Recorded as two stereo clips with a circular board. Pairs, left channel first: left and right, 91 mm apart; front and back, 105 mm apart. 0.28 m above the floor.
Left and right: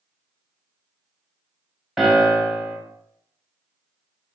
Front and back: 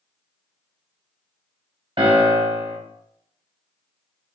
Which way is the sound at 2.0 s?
175° right.